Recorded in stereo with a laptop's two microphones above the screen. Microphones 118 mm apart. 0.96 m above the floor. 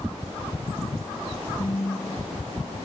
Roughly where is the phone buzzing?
Left.